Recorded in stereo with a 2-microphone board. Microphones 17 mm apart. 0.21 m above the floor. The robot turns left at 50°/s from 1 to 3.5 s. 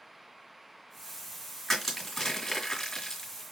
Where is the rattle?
No rattle in this recording.